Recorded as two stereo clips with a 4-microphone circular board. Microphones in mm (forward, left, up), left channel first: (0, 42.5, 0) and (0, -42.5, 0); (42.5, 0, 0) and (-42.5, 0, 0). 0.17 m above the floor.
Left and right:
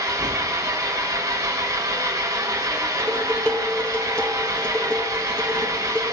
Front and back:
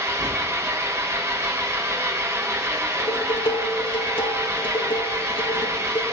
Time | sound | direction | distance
0.0 | an engine running | 130° right | 1.7 m
3.0 | dishes clattering | 15° left | 2.5 m